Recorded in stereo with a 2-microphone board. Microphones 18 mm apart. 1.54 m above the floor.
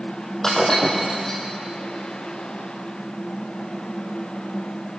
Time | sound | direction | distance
0.4 | breaking glass | 25° left (ahead or behind) | 5 m